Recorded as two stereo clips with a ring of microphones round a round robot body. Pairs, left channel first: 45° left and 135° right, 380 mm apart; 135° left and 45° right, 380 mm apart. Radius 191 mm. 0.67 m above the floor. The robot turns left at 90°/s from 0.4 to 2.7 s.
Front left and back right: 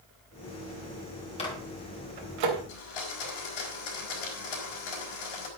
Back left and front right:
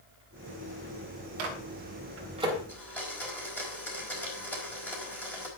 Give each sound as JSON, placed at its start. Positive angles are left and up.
{"t": 1.4, "sound": "a microwave", "azimuth_deg": -30, "distance_m": 3.5}
{"t": 2.7, "sound": "a blender", "azimuth_deg": 50, "distance_m": 4.5}